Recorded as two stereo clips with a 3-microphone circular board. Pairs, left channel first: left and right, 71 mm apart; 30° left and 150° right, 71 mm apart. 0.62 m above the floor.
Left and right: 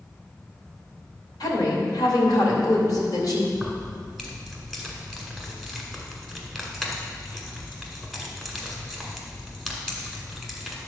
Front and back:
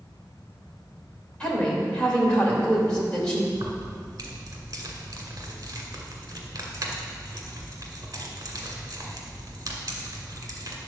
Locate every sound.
1.4 s a woman speaking: 105° left, 2.5 m
3.5 s keys jangling: 175° left, 1.8 m